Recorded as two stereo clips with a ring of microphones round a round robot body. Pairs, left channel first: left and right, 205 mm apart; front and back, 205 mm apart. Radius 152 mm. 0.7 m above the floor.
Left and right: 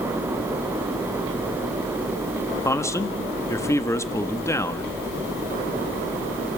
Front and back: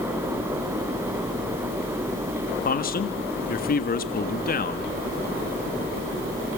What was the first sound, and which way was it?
A man speaking, 20° left.